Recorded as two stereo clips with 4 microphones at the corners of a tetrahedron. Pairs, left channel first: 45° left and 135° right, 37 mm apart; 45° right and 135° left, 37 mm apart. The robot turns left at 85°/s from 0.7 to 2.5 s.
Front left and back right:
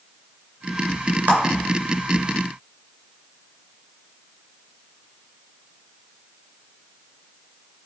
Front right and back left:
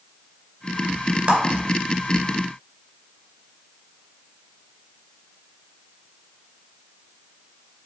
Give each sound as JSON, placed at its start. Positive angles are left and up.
{"t": 1.3, "sound": "a clap", "azimuth_deg": 180, "distance_m": 2.5}